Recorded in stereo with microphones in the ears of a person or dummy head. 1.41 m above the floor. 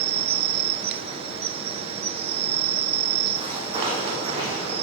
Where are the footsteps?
25° right (ahead or behind), 4.5 m; by 4.7 s 40° right (ahead or behind), 4 m.